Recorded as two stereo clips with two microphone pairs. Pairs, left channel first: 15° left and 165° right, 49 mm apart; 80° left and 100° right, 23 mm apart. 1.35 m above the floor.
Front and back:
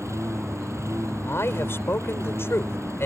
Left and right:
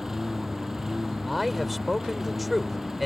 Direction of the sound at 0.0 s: 175° right.